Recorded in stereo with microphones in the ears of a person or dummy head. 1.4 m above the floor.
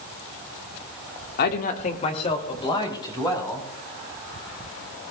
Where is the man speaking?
55° left (ahead or behind), 1.4 m; by 3.7 s 20° left (ahead or behind), 4 m.